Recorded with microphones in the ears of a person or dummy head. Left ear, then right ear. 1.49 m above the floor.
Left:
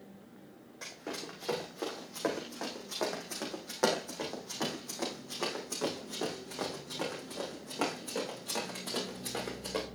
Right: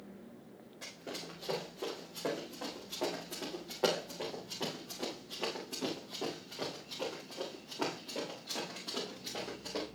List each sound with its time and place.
0.8 s running footsteps: 40° left (ahead or behind), 4 m; by 9.8 s 75° left (ahead or behind), 6.5 m